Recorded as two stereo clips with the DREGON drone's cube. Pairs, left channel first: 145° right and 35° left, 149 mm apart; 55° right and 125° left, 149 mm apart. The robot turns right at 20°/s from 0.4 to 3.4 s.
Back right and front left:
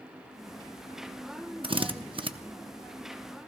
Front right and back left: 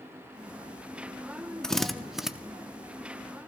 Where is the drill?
30° left, 0.8 m; by 2.3 s 40° left, 0.8 m.